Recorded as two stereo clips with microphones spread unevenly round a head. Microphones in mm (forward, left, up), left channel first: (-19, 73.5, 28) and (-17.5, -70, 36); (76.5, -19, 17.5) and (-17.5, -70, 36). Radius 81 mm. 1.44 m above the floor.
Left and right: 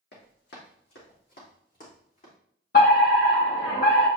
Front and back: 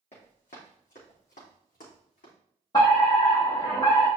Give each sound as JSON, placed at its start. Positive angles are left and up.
{"t": 0.1, "sound": "running footsteps", "azimuth_deg": 85, "distance_m": 3.0}
{"t": 2.7, "sound": "a fire alarm", "azimuth_deg": 90, "distance_m": 4.0}